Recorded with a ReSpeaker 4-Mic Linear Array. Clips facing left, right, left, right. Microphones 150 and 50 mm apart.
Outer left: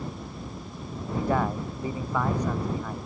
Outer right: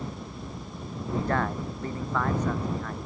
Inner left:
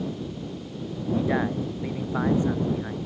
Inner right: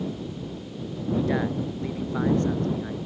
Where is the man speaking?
10° left (ahead or behind).